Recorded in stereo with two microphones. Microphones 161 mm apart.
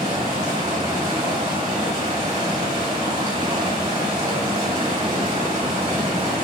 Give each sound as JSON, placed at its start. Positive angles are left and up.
{"t": 0.0, "sound": "running water", "side_deg": -40, "distance_m": 1.7}